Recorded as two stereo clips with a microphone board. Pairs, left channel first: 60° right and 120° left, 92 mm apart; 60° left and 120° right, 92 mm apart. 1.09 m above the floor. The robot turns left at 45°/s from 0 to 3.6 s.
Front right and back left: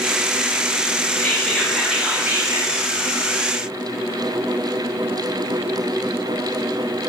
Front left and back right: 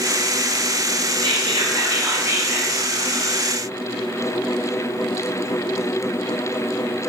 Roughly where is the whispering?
Behind right.